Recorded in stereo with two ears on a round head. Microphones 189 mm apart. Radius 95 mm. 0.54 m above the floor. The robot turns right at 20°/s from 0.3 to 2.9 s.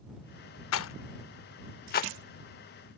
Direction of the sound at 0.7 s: 65° left (ahead or behind).